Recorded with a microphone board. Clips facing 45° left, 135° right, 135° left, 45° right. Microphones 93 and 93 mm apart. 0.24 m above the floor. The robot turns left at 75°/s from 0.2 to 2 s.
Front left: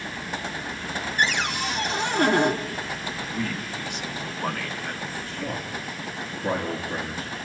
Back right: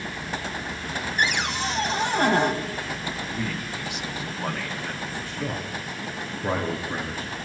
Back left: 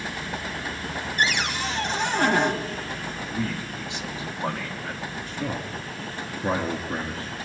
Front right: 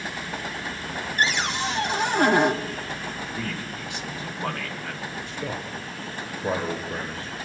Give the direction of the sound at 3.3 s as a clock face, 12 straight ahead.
7 o'clock.